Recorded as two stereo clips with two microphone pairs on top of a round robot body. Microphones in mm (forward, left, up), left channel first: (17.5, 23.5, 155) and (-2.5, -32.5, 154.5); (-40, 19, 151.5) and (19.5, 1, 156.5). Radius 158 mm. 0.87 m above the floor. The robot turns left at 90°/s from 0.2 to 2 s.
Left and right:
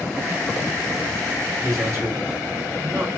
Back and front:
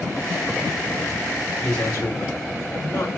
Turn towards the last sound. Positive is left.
turn(degrees=-155)